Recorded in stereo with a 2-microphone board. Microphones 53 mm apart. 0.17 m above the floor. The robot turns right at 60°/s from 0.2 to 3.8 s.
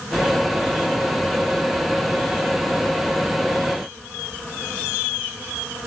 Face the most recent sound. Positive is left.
No sound to turn to.